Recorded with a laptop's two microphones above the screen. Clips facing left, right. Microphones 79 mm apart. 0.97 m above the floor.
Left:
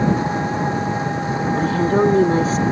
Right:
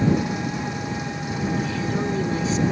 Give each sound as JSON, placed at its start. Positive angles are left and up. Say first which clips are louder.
{"t": 0.0, "sound": "an engine running", "louder": "left 3 dB", "side_deg": 35}
{"t": 1.6, "sound": "a woman speaking", "louder": "left 9 dB", "side_deg": 55}